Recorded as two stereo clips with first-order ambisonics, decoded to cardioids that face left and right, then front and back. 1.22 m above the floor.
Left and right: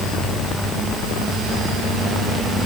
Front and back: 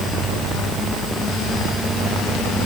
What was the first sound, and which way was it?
Only background noise.